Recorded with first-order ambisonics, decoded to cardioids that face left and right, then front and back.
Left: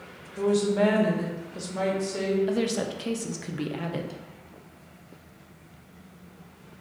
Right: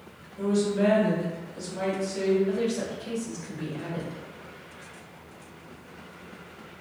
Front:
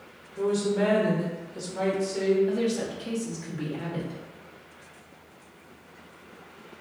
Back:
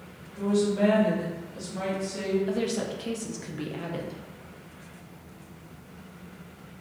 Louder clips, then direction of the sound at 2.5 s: Left 1 dB, front 1 dB; 110° left.